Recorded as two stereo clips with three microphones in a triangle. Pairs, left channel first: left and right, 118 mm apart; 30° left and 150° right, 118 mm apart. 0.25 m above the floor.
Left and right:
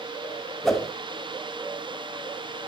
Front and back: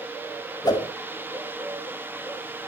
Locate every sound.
0.6 s a whoosh: 5° left, 1.2 m